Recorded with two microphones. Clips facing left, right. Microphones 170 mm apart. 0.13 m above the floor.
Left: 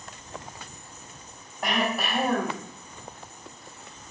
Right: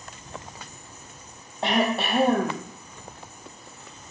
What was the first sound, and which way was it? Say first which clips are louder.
Throat clearing: right 4 dB; 30° right (ahead or behind).